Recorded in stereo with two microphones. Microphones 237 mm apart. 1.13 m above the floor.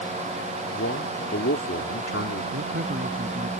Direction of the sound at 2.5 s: 50° right (ahead or behind).